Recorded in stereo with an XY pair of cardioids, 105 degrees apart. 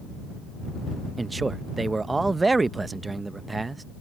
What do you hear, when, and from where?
1.2 s a man speaking: 25° right